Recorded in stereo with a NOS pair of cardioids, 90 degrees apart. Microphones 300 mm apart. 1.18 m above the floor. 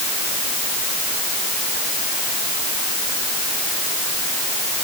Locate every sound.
Only background noise.